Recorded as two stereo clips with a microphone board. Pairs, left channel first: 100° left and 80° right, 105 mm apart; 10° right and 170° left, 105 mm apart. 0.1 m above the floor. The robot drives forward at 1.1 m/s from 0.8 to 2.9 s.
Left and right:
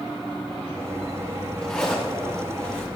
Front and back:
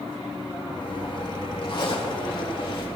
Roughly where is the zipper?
Ahead.